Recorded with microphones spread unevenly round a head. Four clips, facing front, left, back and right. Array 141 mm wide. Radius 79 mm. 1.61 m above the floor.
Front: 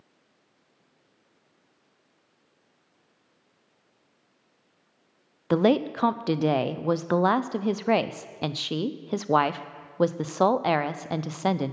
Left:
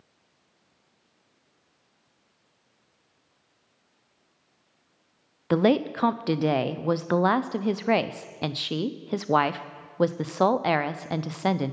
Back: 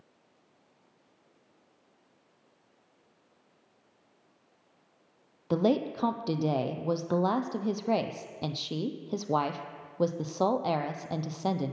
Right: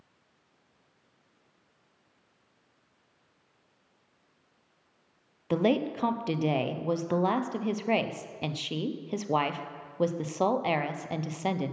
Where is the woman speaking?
25° left, 0.5 m.